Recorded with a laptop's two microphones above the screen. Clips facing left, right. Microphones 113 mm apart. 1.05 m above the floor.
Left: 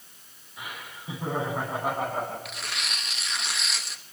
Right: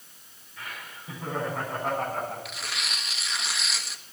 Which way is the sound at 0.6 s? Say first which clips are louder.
Left 1 dB; 20° left (ahead or behind).